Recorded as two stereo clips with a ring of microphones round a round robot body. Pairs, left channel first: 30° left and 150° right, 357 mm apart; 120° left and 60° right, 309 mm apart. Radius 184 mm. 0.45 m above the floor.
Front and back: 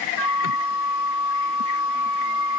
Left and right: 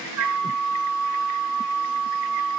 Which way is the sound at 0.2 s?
25° right.